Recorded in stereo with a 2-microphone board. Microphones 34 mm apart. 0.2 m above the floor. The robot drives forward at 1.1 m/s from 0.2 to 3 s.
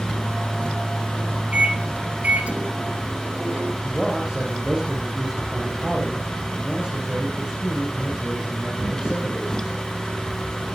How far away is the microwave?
About 3.5 m.